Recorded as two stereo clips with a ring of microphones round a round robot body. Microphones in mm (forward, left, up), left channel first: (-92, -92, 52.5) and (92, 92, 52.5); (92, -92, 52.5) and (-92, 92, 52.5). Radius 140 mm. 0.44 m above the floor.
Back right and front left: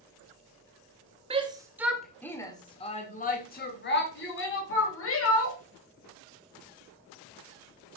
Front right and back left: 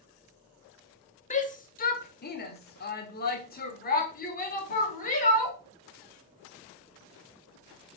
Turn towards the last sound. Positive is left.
turn(degrees=-105)